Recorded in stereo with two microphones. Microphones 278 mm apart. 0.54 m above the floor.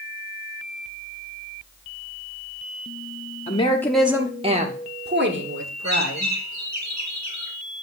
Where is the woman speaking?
25° left (ahead or behind), 0.9 m; by 6.3 s 55° right (ahead or behind), 2.0 m.